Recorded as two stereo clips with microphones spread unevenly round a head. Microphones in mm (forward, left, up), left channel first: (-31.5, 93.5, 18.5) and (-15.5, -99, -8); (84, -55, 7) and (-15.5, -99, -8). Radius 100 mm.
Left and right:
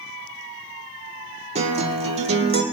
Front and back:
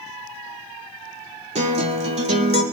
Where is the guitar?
145° right, 1.5 m.